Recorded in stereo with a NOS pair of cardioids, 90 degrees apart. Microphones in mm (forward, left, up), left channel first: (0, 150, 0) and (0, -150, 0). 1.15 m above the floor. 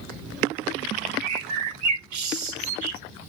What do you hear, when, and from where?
1.2 s a bird: 70° right, 0.9 m